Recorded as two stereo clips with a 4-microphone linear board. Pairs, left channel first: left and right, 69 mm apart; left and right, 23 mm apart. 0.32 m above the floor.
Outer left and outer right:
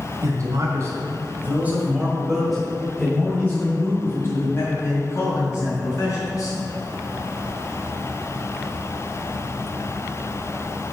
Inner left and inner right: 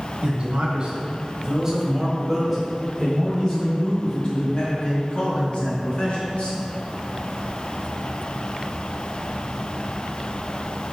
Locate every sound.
0.2 s a man speaking: 50° right (ahead or behind), 2.5 m; by 6.6 s 50° left (ahead or behind), 4 m